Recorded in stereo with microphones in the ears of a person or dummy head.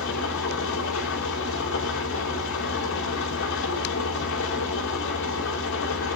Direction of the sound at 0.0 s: 70° left (ahead or behind).